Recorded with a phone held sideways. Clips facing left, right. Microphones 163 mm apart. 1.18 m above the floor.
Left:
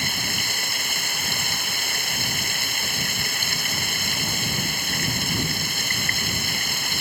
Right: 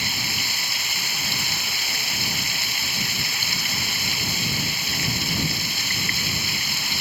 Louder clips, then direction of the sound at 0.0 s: Left 1 dB; 50° left (ahead or behind).